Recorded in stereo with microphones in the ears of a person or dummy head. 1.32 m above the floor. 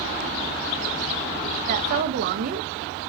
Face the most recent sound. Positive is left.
turn(degrees=-50)  # may be behind; listen again after turning